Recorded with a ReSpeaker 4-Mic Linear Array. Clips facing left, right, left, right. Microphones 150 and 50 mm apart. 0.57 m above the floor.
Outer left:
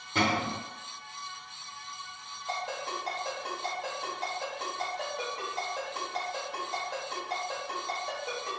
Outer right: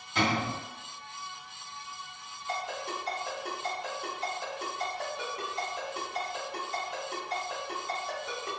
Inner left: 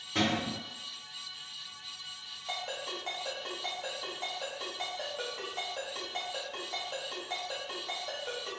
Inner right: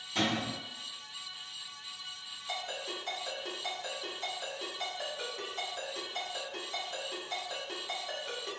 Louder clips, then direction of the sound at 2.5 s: Even, inner left 1 dB; 80° left.